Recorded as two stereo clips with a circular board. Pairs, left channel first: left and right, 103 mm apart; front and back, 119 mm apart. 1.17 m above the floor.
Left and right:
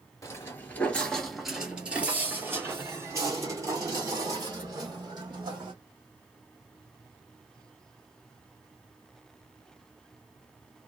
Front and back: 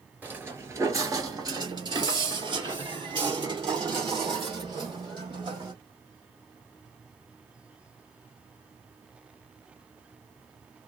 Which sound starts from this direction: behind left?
Footsteps, at 0.2 s.